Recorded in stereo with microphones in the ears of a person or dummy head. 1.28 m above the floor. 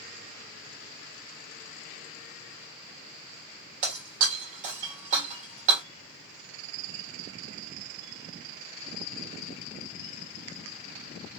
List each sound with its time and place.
3.8 s breaking glass: 40° right (ahead or behind), 1.6 m